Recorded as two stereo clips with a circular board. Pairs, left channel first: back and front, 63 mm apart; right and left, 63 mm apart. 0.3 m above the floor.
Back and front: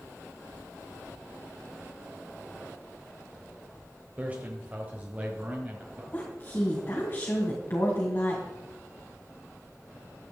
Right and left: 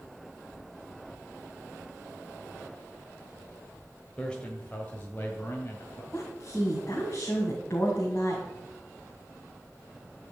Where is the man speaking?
30° right, 1.4 m; by 6.0 s 60° right, 2 m.